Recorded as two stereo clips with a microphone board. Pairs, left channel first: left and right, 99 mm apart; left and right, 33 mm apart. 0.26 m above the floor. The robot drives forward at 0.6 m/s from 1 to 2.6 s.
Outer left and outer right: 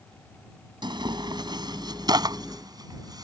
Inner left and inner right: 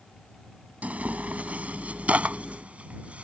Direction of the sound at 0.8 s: 50° right (ahead or behind).